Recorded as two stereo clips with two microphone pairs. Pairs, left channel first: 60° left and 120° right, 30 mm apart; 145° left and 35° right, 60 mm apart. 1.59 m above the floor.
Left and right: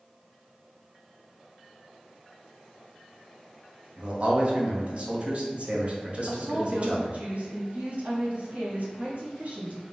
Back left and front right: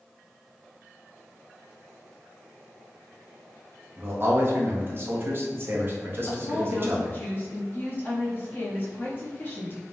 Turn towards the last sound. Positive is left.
turn(degrees=-165)